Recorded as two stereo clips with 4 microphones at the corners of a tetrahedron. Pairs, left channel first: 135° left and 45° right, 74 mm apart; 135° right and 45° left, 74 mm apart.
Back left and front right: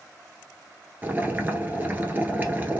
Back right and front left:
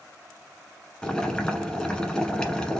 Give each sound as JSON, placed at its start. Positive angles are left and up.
{"t": 1.0, "sound": "boiling", "azimuth_deg": -65, "distance_m": 1.1}